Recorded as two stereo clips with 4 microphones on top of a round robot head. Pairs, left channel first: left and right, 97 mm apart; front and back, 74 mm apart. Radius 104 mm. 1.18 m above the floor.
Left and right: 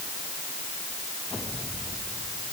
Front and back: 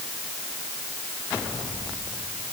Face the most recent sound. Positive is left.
No sound to turn to.